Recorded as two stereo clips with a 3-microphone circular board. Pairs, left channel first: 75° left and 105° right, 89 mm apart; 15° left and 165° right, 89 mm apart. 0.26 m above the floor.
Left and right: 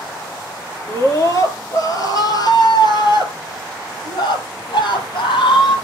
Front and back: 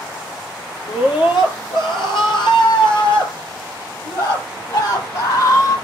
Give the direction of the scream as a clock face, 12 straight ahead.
11 o'clock.